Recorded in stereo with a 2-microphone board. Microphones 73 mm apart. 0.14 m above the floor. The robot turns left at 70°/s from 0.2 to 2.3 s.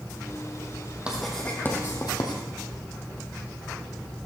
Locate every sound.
1.1 s writing: 15° right (ahead or behind), 2.5 m; by 2.4 s 70° left (ahead or behind), 2.5 m